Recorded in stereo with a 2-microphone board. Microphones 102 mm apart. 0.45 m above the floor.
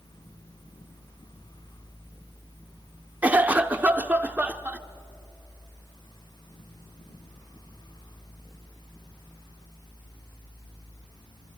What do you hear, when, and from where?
3.2 s a cough: 15° right (ahead or behind), 0.7 m